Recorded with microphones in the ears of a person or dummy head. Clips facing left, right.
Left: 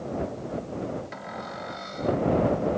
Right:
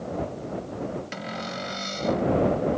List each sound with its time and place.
1.1 s a cupboard door: 45° right (ahead or behind)